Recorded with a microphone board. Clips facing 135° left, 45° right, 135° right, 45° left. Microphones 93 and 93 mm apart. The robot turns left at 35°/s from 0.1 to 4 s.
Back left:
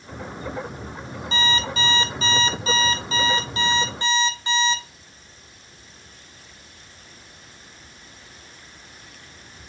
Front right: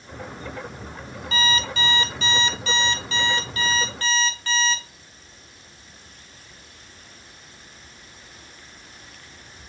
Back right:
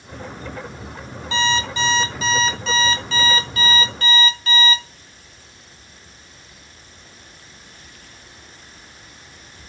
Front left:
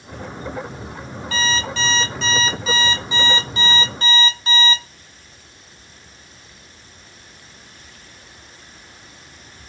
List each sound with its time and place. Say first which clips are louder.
1.3 s an alarm clock: even, back right 2 dB; 175° left, 0.6 m; by 4.8 s 80° left, 0.6 m